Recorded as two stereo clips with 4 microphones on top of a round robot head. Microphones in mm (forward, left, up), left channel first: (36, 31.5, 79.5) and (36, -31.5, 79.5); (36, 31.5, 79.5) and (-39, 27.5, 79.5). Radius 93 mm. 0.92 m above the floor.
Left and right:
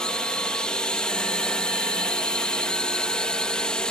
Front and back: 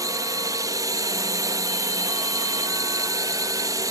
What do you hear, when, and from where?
0.0 s a drone: 165° left